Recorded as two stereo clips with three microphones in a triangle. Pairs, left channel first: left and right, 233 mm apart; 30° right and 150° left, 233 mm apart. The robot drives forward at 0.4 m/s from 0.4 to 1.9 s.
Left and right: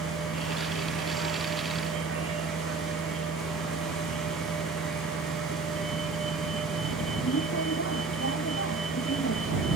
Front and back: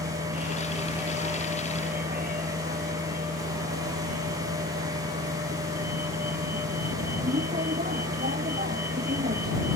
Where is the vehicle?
100° left.